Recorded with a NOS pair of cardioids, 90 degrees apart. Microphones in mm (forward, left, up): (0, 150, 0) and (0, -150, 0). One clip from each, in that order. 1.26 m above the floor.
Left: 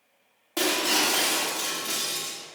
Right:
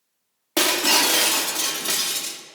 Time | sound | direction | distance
0.6 | breaking glass | 55° right | 1.7 m